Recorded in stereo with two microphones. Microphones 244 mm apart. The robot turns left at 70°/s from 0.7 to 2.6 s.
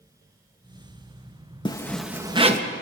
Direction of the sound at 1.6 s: 25° left.